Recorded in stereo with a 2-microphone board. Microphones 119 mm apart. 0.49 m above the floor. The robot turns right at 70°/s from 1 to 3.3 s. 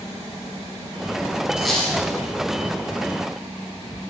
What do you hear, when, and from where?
1.6 s a squeak: 10° right, 4 m; by 2.0 s 25° left, 4 m